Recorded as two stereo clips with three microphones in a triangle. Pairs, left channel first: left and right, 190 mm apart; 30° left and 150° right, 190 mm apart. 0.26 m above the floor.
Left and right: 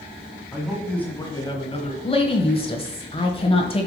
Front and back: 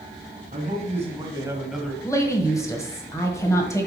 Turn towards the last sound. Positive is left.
turn(degrees=85)